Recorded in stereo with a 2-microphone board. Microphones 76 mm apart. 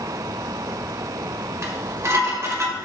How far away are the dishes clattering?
About 1.1 m.